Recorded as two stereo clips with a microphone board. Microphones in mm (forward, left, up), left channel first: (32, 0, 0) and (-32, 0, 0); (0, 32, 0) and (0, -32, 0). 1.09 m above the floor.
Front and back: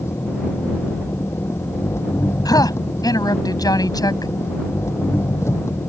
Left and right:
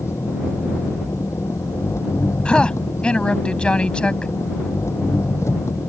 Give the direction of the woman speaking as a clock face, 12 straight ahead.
11 o'clock.